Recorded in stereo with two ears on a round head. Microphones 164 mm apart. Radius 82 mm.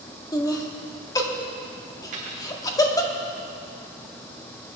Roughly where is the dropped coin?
Right.